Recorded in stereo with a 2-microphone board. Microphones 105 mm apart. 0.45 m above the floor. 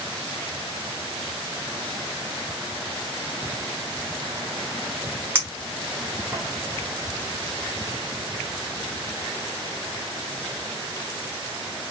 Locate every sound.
5.3 s a clink: 15° right (ahead or behind), 1.2 m